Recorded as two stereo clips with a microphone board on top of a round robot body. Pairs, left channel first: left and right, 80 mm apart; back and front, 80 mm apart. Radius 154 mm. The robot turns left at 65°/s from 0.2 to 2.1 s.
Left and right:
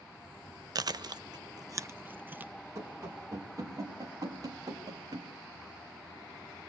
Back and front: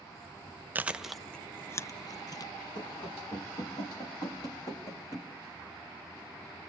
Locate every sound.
0.8 s chewing: 65° right, 0.9 m; by 2.5 s 150° right, 0.9 m
2.8 s running footsteps: 150° right, 6 m; by 5.3 s 125° right, 3.5 m